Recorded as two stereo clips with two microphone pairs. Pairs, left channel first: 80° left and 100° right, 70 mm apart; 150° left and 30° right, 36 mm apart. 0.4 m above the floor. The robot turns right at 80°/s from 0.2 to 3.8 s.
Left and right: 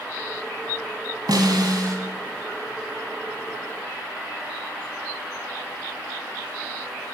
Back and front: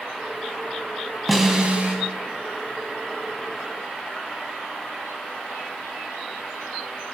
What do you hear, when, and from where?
1.3 s a snare drum: 120° right, 2.0 m; by 2.0 s 65° right, 2.0 m